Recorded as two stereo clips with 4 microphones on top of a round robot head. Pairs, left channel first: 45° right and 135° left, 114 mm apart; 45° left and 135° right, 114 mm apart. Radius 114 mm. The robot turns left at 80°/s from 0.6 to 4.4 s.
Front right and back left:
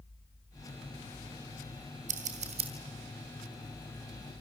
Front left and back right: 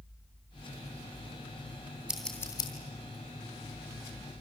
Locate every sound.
2.1 s scissors: 140° left, 3.5 m; by 2.7 s 90° left, 3.5 m